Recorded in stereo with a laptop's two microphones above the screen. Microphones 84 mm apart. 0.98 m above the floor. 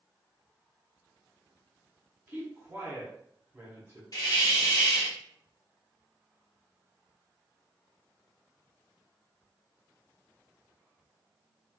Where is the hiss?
50° left (ahead or behind), 0.5 m.